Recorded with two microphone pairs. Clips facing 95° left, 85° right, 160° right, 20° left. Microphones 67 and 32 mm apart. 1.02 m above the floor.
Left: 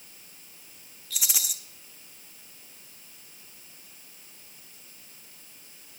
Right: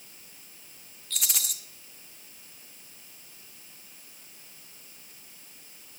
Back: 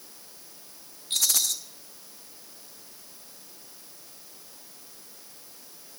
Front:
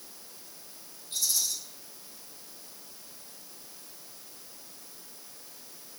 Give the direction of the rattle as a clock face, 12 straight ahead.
6 o'clock.